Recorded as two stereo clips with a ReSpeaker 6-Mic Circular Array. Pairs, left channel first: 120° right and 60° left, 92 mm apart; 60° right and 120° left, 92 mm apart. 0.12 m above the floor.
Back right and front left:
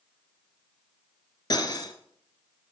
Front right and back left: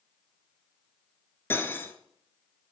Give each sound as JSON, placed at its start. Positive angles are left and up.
{"t": 1.5, "sound": "cutlery clinking", "azimuth_deg": -120, "distance_m": 1.0}